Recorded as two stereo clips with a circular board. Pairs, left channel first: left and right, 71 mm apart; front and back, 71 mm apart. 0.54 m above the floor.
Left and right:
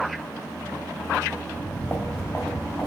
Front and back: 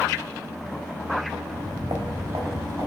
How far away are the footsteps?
About 1.6 m.